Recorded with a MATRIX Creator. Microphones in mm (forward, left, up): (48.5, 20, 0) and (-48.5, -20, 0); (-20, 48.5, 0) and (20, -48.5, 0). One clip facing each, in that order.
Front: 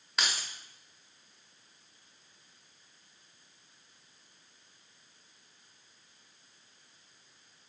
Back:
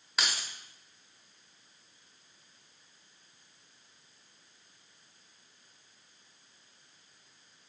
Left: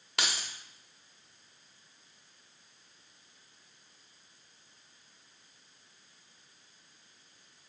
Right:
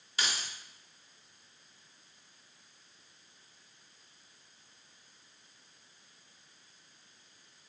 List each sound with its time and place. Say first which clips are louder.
0.2 s keys jangling: even, left 1 dB; 115° left, 0.8 m